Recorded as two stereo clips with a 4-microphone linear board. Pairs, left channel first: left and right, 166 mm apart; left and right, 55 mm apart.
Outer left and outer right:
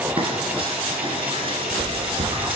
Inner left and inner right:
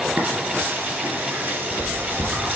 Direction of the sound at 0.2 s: 35° right (ahead or behind).